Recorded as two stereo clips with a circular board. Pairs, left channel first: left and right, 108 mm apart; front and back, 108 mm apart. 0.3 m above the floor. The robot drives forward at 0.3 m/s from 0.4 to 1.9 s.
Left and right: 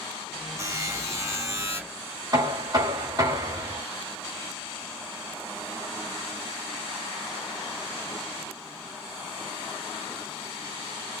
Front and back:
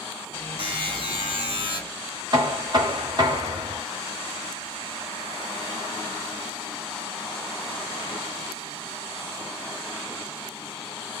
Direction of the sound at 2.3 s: 140° right.